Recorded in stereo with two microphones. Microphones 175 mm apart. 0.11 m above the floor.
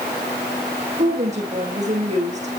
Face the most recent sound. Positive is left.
turn(degrees=-40)  # may be behind; listen again after turning